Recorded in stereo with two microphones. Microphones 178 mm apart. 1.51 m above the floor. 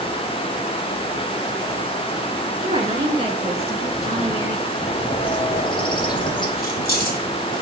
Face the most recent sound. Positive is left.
turn(degrees=55)  # may be behind; listen again after turning